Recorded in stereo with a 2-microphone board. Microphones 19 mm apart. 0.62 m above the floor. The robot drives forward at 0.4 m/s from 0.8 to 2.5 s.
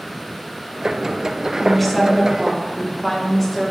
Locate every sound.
1.6 s a woman speaking: 5° left (ahead or behind), 0.8 m